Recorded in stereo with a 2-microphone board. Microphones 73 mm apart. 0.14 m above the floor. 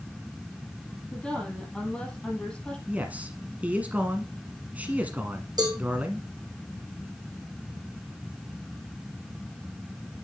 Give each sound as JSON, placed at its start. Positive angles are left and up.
{"t": 1.1, "sound": "a woman speaking", "side_deg": 10, "distance_m": 5.5}
{"t": 2.9, "sound": "a man speaking", "side_deg": -20, "distance_m": 1.1}
{"t": 5.6, "sound": "a cowbell", "side_deg": -80, "distance_m": 3.0}